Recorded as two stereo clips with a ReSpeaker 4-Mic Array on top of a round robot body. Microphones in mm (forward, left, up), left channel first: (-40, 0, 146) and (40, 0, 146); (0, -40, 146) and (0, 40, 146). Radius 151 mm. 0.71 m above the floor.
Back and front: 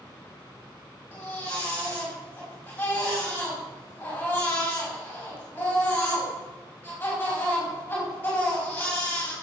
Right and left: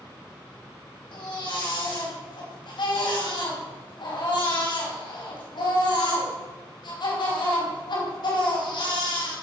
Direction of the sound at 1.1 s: 110° right.